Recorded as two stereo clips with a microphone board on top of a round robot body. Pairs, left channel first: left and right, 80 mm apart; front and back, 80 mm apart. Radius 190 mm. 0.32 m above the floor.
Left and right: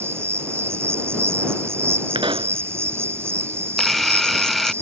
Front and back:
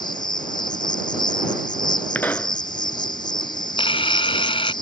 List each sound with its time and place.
0.0 s an insect: 30° right
2.1 s a pop: 70° right
3.8 s a camera shutter: straight ahead